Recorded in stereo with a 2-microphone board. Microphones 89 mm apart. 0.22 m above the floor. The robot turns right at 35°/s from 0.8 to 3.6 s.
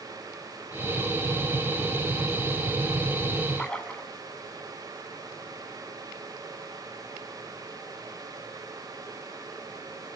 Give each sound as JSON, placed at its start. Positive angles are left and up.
{"t": 3.6, "sound": "a splash", "side_deg": 15, "distance_m": 3.5}